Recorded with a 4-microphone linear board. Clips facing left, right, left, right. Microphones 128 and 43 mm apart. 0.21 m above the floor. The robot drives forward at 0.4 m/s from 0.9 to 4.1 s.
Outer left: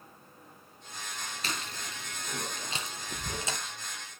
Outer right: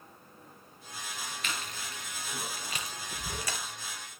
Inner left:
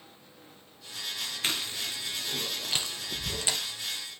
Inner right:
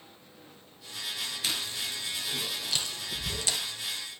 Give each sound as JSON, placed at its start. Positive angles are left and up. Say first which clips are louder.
{"t": 1.4, "sound": "chewing", "louder": "outer left 2 dB, inner left 2 dB", "side_deg": 35, "distance_m": 1.6}